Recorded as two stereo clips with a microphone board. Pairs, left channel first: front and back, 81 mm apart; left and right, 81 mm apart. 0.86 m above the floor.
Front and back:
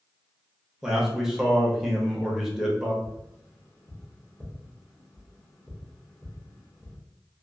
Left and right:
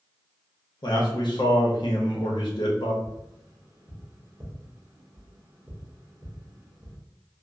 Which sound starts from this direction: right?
Tapping, at 3.0 s.